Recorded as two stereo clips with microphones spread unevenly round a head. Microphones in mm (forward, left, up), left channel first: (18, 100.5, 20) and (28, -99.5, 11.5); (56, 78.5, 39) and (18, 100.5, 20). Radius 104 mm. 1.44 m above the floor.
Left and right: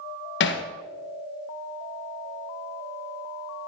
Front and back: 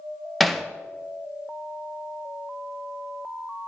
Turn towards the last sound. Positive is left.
turn(degrees=60)